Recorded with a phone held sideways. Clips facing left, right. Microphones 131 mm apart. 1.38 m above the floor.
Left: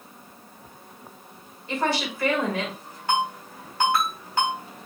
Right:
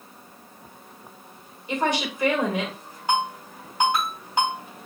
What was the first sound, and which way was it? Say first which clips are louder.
A woman speaking: right 1 dB; 20° right (ahead or behind).